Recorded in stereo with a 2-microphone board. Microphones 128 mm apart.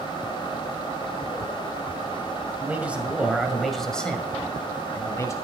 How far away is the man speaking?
About 2 m.